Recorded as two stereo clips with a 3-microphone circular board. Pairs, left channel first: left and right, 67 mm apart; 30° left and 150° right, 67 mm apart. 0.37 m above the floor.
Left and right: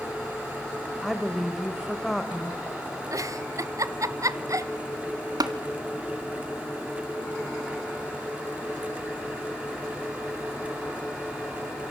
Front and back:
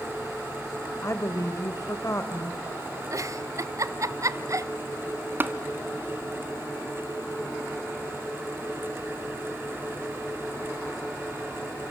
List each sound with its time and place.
1.0 s a woman speaking: straight ahead, 1.4 m
3.1 s a giggle: 120° right, 0.8 m
5.4 s tapping: 90° right, 1.6 m